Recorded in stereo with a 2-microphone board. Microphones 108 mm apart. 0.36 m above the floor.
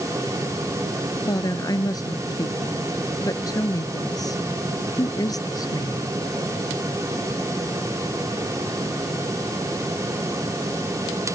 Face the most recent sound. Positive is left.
turn(degrees=35)  # may be behind; listen again after turning